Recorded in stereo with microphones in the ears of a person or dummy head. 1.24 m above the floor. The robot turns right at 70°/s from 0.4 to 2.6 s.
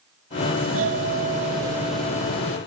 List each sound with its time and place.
0.6 s a doorbell: 100° right; by 2.6 s 40° left